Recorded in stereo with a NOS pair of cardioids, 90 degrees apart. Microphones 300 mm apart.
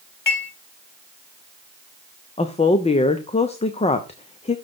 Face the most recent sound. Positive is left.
turn(degrees=20)